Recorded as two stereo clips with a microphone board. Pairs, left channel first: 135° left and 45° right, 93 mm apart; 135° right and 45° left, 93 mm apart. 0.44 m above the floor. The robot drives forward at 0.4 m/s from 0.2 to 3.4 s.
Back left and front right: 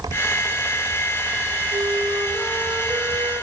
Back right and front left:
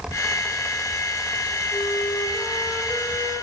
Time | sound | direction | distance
1.7 | a flute | 70° right | 1.4 m